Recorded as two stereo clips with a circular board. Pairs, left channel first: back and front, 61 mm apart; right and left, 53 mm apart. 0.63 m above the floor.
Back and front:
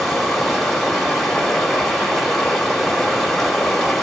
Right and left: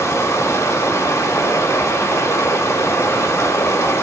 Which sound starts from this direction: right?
Running water, at 0.0 s.